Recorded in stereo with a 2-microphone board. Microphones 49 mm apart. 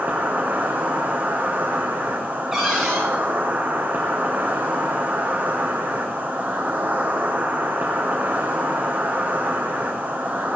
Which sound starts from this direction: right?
An insect, at 0.0 s.